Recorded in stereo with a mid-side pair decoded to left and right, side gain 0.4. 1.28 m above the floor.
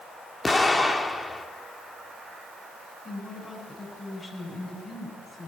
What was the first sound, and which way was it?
An explosion, 30° left.